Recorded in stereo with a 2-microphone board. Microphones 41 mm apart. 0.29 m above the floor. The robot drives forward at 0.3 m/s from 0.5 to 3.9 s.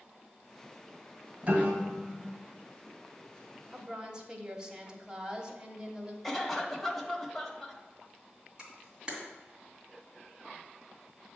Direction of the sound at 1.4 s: 35° right (ahead or behind).